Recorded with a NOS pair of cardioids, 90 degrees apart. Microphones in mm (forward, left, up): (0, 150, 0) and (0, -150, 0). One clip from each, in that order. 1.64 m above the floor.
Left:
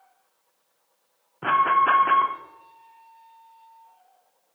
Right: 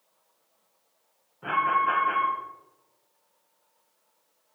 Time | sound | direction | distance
1.4 | an alarm | 55° left | 0.6 m